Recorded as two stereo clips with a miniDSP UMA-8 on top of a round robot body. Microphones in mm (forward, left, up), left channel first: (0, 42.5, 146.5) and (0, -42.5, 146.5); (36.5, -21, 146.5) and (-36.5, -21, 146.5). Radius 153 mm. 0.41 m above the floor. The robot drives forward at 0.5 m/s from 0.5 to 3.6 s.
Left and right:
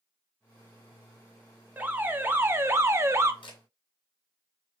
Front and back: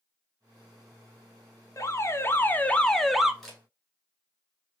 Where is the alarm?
30° right, 1.1 m; by 3.3 s 105° right, 0.8 m.